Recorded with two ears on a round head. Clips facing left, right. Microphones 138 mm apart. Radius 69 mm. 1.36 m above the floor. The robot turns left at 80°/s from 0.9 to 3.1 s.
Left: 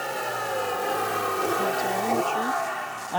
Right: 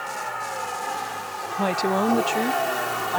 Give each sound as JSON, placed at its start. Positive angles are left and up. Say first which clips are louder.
{"t": 0.0, "sound": "a vehicle", "louder": "left 2 dB", "side_deg": 40}
{"t": 1.6, "sound": "a woman speaking", "louder": "right 3 dB", "azimuth_deg": -80}